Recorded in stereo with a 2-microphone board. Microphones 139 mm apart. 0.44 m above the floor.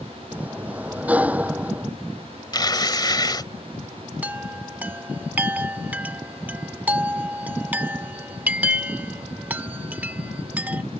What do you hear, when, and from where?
0.3 s a sliding door: 10° right (ahead or behind)
2.5 s tearing paper: 30° left (ahead or behind)
4.2 s a chime: 10° right (ahead or behind)